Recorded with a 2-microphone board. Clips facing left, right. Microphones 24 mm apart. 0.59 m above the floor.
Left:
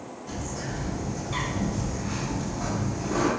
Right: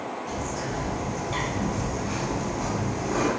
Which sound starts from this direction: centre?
A bird, at 0.3 s.